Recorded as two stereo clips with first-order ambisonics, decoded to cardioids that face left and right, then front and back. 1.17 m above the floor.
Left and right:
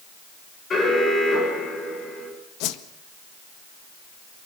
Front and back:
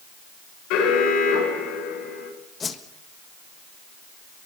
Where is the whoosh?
70° left, 1.5 m.